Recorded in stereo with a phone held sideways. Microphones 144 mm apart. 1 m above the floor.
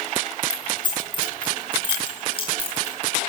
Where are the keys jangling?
30° left (ahead or behind), 9 m; by 3.0 s 40° left (ahead or behind), 9.5 m.